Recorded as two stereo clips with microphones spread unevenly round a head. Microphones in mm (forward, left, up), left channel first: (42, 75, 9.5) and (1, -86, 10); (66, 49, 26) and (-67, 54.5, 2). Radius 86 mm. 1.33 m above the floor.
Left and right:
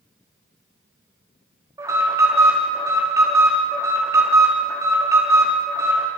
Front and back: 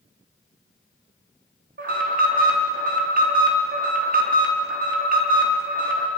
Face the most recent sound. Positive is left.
turn(degrees=-175)